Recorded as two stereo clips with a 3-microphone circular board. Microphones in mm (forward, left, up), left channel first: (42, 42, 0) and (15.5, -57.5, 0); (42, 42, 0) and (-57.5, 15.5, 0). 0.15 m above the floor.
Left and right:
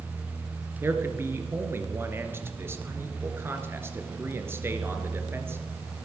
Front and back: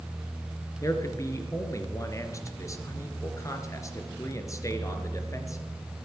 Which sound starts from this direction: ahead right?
A man speaking, at 0.8 s.